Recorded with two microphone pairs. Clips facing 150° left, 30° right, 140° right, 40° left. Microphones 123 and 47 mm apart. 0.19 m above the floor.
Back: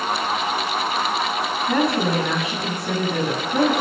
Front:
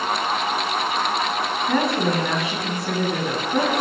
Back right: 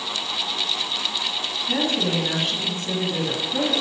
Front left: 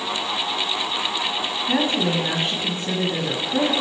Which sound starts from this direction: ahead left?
A woman speaking, at 1.7 s.